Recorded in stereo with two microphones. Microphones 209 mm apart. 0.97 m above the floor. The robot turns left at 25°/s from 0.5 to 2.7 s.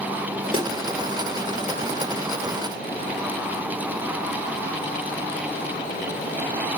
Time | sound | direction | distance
0.5 | a snare drum | 25° right (ahead or behind) | 4 m